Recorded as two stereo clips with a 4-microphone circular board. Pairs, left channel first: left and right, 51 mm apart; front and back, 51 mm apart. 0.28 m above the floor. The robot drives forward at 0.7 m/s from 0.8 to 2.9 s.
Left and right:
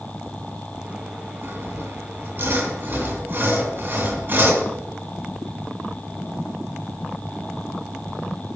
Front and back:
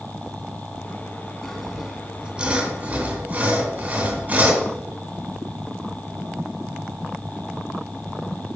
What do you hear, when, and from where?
1.4 s sawing: 80° right, 1.6 m; by 4.7 s 130° right, 1.8 m